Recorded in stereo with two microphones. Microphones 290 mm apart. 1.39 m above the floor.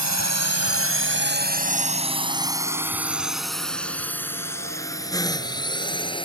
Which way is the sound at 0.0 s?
70° right (ahead or behind).